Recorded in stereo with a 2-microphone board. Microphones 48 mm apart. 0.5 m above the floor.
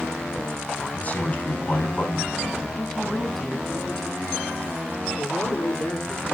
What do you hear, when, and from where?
0.9 s a man speaking: 35° left (ahead or behind), 4.5 m
2.8 s a woman speaking: 10° left (ahead or behind), 4 m
5.2 s a man speaking: 60° left (ahead or behind), 6 m